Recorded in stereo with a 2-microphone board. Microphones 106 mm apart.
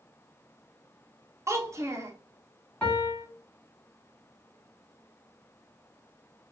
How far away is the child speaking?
About 0.6 m.